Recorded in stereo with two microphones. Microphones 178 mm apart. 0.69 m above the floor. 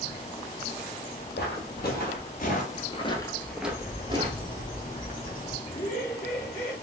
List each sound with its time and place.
1.4 s footsteps: 70° left (ahead or behind), 1.7 m; by 4.6 s 40° right (ahead or behind), 1.1 m
3.6 s a bird: 50° left (ahead or behind), 1.4 m
5.7 s laughter: 55° left (ahead or behind), 1.4 m